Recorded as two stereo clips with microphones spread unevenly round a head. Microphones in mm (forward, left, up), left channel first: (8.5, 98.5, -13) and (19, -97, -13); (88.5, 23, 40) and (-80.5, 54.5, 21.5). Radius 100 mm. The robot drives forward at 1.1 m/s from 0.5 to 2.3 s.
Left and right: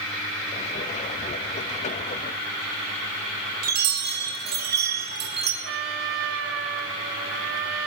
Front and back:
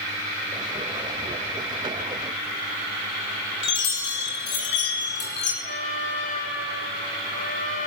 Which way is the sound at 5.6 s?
65° right.